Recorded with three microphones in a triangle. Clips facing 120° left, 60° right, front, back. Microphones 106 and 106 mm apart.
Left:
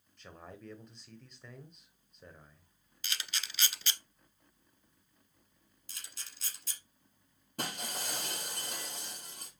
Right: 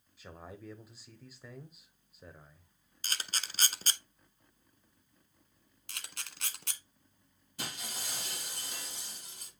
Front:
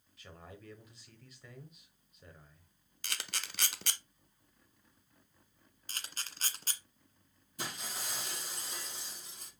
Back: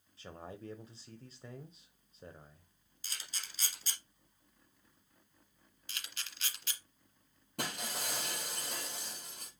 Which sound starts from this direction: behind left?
Breaking glass, at 7.6 s.